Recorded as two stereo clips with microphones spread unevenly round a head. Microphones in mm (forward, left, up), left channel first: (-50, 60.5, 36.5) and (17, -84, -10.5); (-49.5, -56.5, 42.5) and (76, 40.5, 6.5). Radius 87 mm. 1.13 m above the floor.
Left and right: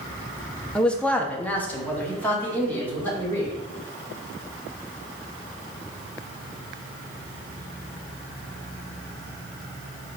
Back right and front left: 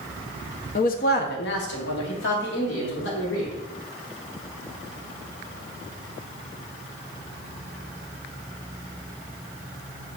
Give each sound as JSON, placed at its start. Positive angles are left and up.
{"t": 0.8, "sound": "a man speaking", "azimuth_deg": -140, "distance_m": 0.5}